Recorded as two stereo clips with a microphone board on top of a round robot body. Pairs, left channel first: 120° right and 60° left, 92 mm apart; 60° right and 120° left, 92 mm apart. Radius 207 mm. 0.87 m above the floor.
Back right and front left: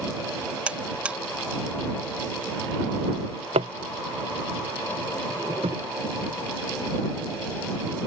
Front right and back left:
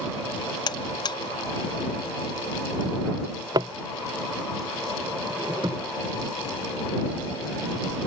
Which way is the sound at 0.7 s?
15° right.